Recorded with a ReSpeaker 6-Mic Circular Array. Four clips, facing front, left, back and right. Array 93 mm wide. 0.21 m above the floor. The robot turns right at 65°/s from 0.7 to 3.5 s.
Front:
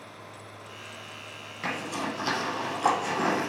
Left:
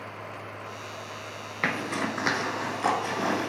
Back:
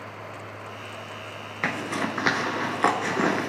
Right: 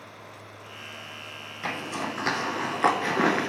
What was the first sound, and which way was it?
A zipper, 130° left.